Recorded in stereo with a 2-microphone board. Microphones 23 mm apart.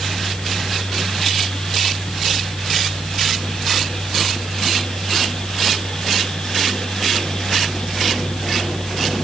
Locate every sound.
Only background noise.